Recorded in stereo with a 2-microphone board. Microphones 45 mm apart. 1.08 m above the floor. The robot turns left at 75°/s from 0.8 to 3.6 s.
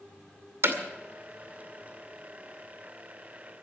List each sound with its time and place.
0.6 s hammering: 65° right (ahead or behind), 2 m